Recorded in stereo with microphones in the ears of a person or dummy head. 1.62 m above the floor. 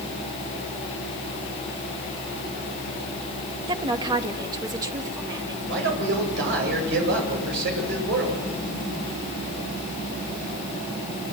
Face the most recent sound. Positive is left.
turn(degrees=-70)  # may be behind; listen again after turning